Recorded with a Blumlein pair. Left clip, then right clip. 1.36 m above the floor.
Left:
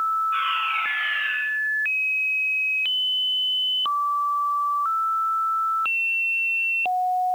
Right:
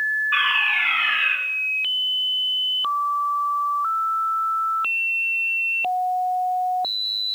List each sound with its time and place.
0.3 s a fire alarm: 35° right, 8.5 m